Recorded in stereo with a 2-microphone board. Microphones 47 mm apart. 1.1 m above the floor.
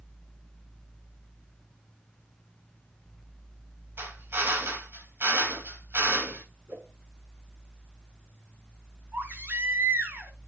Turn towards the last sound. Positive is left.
turn(degrees=-50)  # may be behind; listen again after turning